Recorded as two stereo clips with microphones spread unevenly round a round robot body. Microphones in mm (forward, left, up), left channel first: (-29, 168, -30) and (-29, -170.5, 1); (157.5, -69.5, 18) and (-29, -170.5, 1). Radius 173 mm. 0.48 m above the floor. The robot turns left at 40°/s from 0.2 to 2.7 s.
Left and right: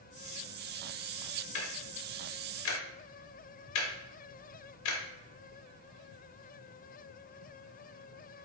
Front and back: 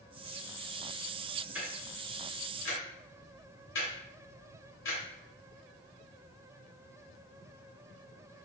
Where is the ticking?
125° left, 0.7 m; by 5.0 s 80° left, 0.7 m.